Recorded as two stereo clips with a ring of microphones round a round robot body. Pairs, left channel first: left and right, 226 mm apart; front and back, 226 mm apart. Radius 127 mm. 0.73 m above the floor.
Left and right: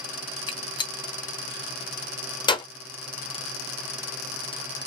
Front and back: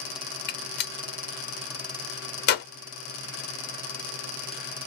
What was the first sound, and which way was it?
A gunshot, 25° left.